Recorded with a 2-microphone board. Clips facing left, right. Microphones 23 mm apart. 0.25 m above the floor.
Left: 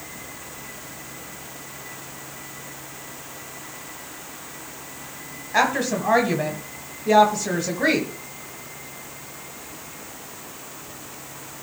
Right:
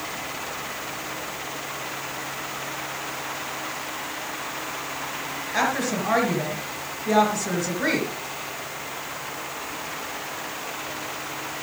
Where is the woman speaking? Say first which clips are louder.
Left 3 dB; 30° left (ahead or behind), 1.4 m.